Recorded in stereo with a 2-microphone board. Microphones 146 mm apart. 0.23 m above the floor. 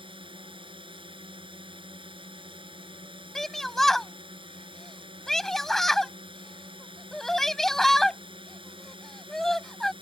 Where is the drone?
35° right (ahead or behind).